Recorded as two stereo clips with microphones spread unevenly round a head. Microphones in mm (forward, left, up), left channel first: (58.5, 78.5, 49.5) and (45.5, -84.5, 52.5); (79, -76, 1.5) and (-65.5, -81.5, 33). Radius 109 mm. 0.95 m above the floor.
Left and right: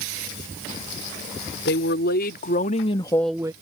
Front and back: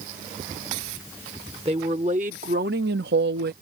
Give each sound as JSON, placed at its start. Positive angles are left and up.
{"t": 1.6, "sound": "a woman speaking", "azimuth_deg": 115}